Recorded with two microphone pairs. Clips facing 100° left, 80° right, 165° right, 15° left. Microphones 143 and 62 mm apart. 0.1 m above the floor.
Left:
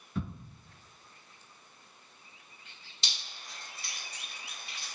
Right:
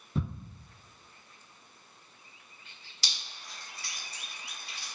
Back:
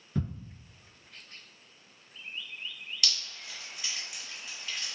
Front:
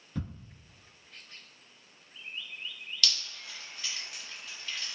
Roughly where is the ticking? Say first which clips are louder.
Right 3 dB, back 5 dB; right.